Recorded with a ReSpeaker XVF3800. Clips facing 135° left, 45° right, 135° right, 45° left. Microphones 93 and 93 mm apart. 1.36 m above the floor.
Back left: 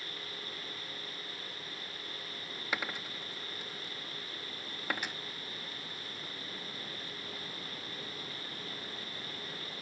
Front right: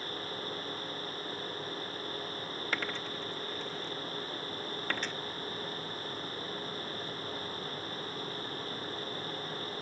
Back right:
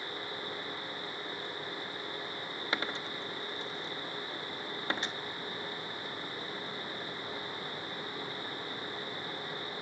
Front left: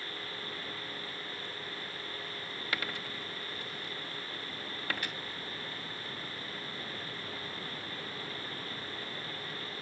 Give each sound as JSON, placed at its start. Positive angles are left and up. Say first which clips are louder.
{"t": 2.7, "sound": "a dropped coin", "louder": "even, back right 2 dB", "azimuth_deg": -160, "distance_m": 0.8}